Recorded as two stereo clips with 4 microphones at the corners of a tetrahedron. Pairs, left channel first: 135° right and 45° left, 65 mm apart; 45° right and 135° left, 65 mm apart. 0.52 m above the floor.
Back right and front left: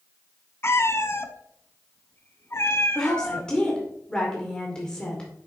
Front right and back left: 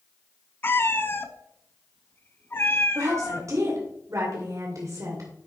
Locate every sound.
0.6 s a cat meowing: 95° right, 0.7 m
3.0 s a woman speaking: 150° left, 2 m